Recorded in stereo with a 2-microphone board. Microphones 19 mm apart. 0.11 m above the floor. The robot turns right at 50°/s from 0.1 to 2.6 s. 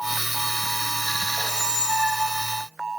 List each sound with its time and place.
1.4 s a squeak: 130° right, 1.6 m; by 2.7 s 70° right, 1.6 m